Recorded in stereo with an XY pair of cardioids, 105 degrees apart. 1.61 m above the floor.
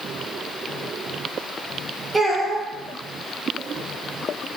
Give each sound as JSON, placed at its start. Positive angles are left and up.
{"t": 2.1, "sound": "a child speaking", "azimuth_deg": -25, "distance_m": 2.0}